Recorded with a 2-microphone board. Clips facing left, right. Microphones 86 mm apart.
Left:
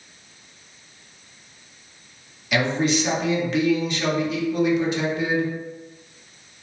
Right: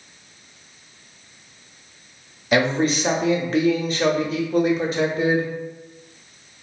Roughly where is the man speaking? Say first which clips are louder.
Right 2 dB; right.